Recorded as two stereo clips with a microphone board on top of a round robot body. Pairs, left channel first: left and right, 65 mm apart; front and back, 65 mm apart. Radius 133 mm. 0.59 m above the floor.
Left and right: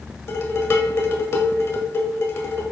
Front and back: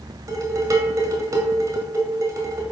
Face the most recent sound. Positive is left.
turn(degrees=140)